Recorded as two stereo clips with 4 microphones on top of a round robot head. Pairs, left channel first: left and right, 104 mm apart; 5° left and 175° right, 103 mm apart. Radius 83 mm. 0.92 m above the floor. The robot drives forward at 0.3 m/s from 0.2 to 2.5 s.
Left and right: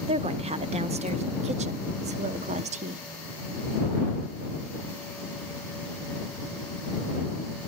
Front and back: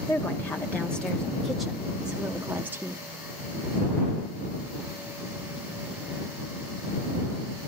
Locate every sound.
0.1 s a woman speaking: 70° right, 1.4 m; by 3.1 s 100° right, 1.3 m